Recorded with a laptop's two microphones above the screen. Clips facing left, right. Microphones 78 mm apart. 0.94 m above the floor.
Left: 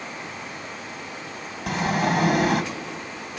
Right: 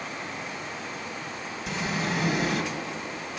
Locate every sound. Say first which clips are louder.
1.7 s a sliding door: left 7 dB; 60° left (ahead or behind), 1.6 m